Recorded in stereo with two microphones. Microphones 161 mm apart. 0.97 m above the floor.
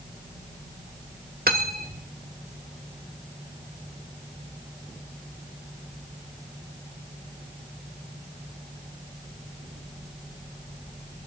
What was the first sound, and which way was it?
Cutlery clinking, 70° right (ahead or behind).